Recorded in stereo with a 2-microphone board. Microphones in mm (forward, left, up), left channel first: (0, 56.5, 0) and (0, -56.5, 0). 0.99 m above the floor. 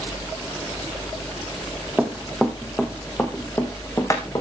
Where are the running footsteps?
5° right (ahead or behind), 1.9 m; by 4.4 s 30° left (ahead or behind), 3 m.